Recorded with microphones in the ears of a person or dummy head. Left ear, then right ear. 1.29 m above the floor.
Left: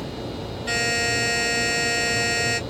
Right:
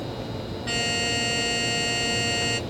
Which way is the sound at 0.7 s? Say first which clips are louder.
Left 3 dB; 5° right (ahead or behind).